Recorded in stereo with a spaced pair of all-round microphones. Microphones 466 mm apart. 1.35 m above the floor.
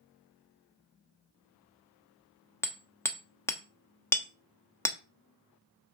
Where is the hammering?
5° left (ahead or behind), 0.9 m.